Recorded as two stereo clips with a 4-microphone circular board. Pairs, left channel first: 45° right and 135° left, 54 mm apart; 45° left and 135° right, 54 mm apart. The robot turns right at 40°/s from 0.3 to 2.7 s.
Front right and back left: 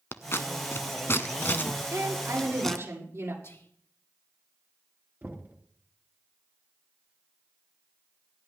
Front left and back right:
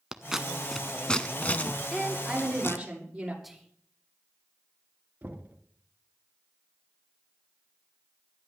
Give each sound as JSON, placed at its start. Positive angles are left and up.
{"t": 0.1, "sound": "scissors", "azimuth_deg": -55, "distance_m": 0.7}
{"t": 1.9, "sound": "a woman speaking", "azimuth_deg": 120, "distance_m": 7.5}
{"t": 3.4, "sound": "whispering", "azimuth_deg": -50, "distance_m": 2.5}
{"t": 5.2, "sound": "knocking", "azimuth_deg": 175, "distance_m": 2.0}